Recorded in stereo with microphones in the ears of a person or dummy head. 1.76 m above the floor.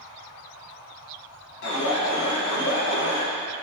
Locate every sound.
1.6 s an alarm: 60° left (ahead or behind), 1.7 m